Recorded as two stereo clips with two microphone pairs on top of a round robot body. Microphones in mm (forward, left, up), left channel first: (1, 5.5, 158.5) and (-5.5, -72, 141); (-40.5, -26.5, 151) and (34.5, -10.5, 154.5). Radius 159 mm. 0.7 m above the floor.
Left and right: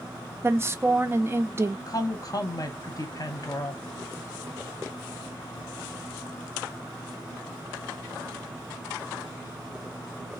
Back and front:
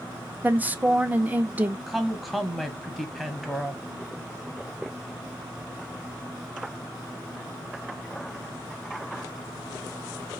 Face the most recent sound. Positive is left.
turn(degrees=105)